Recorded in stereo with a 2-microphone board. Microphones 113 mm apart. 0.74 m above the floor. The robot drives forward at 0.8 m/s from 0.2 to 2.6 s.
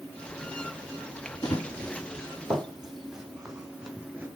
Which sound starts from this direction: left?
Running footsteps, at 1.4 s.